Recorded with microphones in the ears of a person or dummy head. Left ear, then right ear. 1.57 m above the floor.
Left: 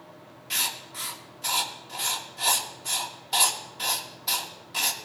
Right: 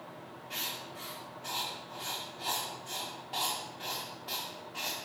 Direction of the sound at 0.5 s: 70° left (ahead or behind).